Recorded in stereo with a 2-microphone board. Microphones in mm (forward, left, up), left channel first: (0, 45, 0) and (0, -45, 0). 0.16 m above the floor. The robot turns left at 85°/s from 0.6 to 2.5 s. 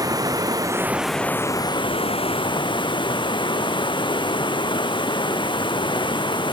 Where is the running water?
140° right, 1.6 m; by 6.5 s 60° left, 1.6 m.